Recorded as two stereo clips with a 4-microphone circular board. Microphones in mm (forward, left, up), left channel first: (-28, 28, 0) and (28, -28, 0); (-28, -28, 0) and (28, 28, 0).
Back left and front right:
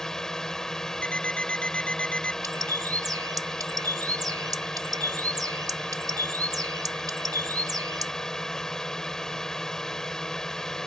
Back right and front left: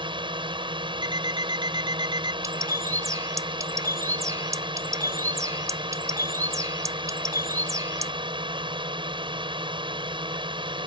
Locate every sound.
0.0 s a drone: 50° left
1.0 s an alarm clock: 60° left
2.4 s a bird: 5° right